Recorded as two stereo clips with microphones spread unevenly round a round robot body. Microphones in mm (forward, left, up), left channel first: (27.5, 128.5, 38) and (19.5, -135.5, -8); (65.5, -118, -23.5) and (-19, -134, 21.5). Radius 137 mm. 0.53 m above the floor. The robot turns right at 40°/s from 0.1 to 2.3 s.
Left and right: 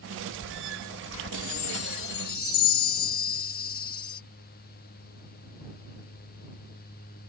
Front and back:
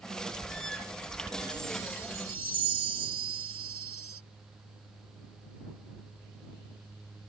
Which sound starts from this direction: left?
A chime, at 1.3 s.